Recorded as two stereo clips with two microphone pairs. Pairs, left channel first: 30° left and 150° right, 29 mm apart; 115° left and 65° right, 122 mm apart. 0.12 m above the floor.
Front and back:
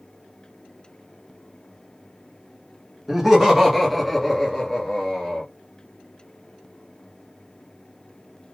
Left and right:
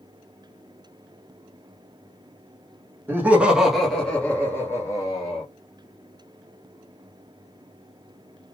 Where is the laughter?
95° right, 1.4 m; by 5.5 s 90° left, 1.7 m.